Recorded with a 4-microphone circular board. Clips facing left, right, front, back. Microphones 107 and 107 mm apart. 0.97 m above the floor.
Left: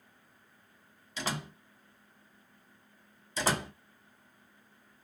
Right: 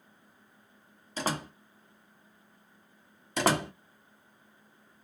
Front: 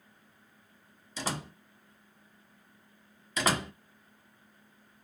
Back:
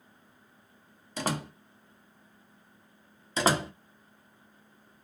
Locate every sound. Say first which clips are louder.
1.2 s a door slam: right 4 dB, back 4 dB; 140° right, 1.0 m
3.4 s a door slam: right 5 dB, back 4 dB; 120° right, 0.8 m